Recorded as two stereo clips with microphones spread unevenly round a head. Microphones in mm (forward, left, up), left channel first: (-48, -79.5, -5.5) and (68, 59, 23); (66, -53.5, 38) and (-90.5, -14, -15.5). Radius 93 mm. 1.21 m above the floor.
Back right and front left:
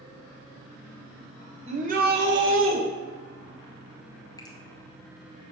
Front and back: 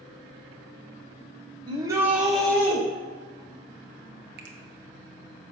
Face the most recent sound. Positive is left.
turn(degrees=160)